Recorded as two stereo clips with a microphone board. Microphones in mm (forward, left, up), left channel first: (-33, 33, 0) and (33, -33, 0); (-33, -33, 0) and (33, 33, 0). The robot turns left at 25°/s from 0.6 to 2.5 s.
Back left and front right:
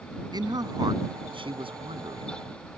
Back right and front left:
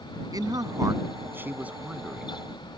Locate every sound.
0.3 s a man speaking: 5° right; by 2.7 s 50° right